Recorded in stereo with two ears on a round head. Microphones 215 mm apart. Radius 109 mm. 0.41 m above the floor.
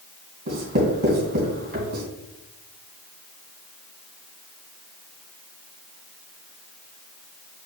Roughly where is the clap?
No clap in this recording.